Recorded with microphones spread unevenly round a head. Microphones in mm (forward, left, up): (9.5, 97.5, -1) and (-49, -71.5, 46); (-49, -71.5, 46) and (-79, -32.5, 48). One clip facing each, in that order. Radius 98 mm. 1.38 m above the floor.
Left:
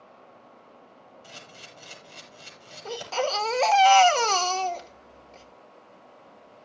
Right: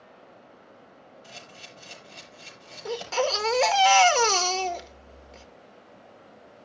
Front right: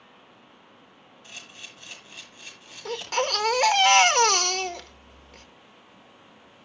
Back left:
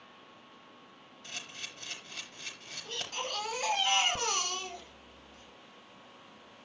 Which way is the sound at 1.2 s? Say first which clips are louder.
Even, even; 145° left.